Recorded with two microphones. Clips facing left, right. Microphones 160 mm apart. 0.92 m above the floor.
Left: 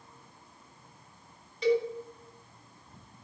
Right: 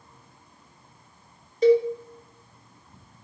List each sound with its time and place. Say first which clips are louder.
1.6 s a cowbell: right 8 dB; 45° right (ahead or behind), 1.4 m